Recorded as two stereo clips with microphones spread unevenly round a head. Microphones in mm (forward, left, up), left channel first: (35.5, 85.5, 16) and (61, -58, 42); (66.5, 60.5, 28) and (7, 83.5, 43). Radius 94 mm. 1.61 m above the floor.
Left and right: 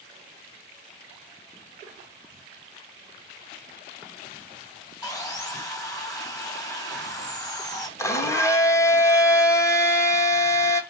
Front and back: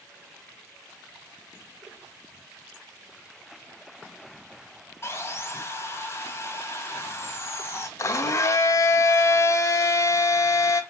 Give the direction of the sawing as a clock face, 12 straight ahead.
11 o'clock.